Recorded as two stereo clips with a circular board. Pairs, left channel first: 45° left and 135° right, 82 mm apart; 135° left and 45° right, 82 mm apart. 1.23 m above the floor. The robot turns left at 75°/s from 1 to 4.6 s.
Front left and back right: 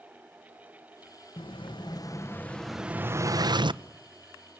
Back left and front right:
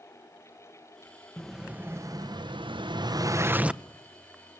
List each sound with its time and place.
1.4 s an explosion: 55° left, 0.8 m; by 3.8 s 130° right, 0.8 m